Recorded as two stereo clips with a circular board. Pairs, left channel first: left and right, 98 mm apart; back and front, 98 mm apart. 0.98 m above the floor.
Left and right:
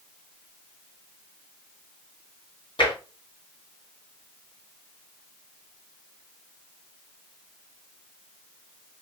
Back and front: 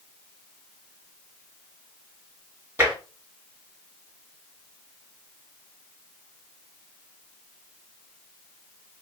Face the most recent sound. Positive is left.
turn(degrees=65)